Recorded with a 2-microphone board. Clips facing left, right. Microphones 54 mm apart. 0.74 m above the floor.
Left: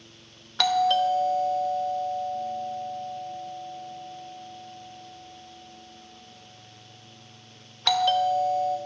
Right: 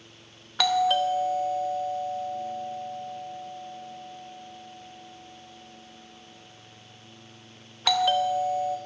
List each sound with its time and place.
0.6 s a doorbell: 5° right (ahead or behind), 0.8 m